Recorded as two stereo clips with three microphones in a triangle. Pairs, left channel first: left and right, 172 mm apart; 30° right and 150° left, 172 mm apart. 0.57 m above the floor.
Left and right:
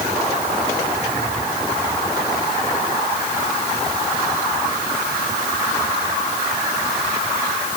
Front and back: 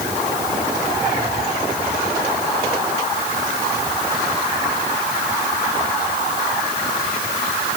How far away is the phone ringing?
I don't hear a phone ringing.